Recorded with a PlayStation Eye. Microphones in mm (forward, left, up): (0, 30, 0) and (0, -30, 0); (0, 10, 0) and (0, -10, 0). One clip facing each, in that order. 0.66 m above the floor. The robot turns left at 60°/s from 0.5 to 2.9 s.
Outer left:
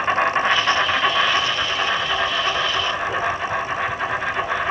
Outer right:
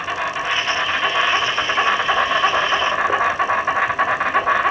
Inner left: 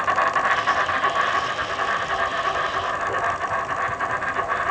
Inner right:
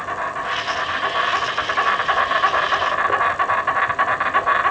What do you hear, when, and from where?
0.0 s an insect: 30° left, 0.9 m; by 4.7 s 115° right, 0.9 m